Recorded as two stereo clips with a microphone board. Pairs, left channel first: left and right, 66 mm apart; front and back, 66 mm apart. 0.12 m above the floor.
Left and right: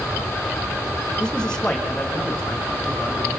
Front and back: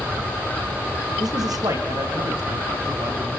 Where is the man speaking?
165° left, 5.5 m; by 3.3 s 170° left, 8 m.